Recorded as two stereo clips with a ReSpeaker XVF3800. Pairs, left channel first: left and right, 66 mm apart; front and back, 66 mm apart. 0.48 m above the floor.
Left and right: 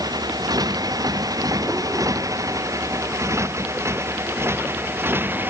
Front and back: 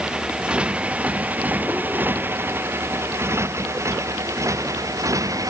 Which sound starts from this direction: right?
A motorcycle, at 0.0 s.